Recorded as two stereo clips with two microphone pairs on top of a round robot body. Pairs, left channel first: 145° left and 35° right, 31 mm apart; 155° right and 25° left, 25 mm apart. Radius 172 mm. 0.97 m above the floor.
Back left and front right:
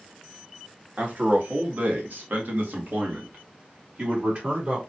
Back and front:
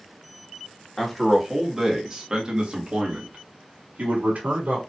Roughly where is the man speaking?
Right.